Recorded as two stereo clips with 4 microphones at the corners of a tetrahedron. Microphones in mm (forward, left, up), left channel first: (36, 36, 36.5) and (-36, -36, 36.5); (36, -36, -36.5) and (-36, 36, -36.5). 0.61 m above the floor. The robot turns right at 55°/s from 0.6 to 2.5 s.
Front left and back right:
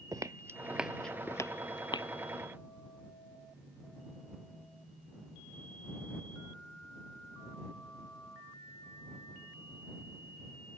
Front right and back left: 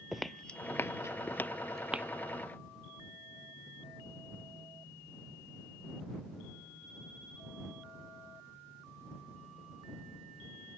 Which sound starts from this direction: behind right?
Footsteps, at 0.1 s.